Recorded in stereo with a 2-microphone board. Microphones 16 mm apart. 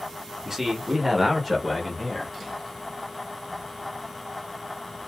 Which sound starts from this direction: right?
A man speaking, at 0.5 s.